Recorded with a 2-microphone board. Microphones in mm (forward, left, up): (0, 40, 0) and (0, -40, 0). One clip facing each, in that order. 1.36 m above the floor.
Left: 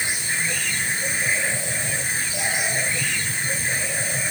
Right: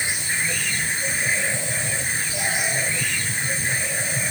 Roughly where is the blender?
No blender in this recording.